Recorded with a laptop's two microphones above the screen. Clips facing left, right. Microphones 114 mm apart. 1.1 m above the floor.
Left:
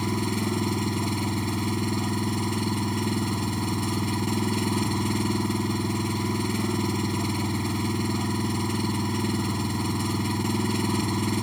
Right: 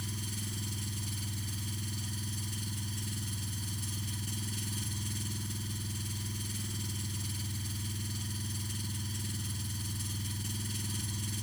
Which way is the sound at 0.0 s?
75° left (ahead or behind).